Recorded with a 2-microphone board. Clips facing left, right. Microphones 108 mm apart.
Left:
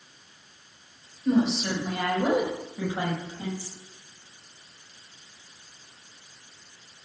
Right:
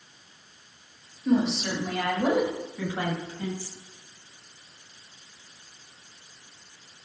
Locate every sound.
1.2 s a woman speaking: centre (ahead or behind), 5 m; by 3.7 s 20° left (ahead or behind), 6.5 m